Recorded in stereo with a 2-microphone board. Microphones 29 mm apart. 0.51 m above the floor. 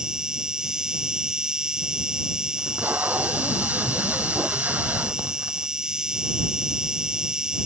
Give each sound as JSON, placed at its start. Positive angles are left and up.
{"t": 0.0, "sound": "an insect", "side_deg": -25}
{"t": 2.6, "sound": "tape being pulled", "side_deg": -80}